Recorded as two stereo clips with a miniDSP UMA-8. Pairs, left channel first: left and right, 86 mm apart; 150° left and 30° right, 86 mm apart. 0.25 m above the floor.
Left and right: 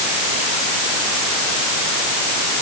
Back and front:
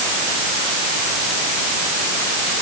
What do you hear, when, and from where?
Only background noise.